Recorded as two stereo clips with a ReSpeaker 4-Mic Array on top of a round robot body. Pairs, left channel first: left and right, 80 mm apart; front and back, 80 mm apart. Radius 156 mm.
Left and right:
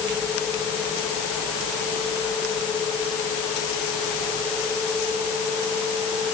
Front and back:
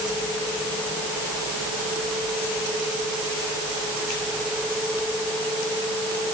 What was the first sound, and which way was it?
Only background noise.